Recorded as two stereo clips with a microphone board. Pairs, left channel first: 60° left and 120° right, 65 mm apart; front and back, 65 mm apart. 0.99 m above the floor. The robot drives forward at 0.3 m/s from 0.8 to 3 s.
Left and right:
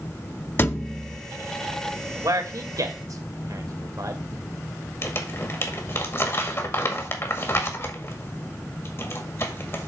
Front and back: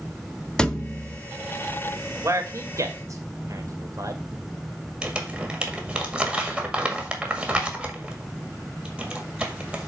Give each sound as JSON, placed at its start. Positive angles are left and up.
{"t": 0.6, "sound": "a thud", "azimuth_deg": 70, "distance_m": 0.7}
{"t": 2.2, "sound": "a man speaking", "azimuth_deg": -140, "distance_m": 1.7}
{"t": 5.0, "sound": "crumpling", "azimuth_deg": 105, "distance_m": 1.8}